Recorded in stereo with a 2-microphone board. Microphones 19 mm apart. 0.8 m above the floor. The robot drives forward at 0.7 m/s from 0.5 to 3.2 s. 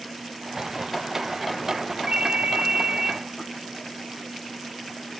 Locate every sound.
2.1 s a ringtone: 65° right (ahead or behind), 0.5 m; by 3.2 s 40° right (ahead or behind), 0.7 m